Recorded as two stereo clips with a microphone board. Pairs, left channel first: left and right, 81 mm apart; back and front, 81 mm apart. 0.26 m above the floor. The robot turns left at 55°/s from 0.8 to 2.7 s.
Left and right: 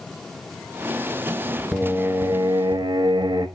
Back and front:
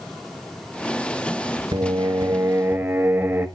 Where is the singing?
10° right, 1.0 m; by 3.5 s 65° right, 1.0 m.